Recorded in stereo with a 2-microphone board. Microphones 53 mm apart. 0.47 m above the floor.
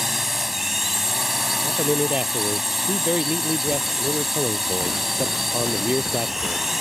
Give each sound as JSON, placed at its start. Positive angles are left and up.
{"t": 0.0, "sound": "a drone", "side_deg": -5}
{"t": 1.6, "sound": "a man speaking", "side_deg": -25}